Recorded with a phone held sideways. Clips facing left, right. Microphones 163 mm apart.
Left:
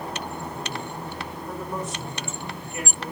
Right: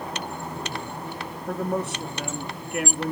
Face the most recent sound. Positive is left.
turn(degrees=-65)  # may be behind; listen again after turning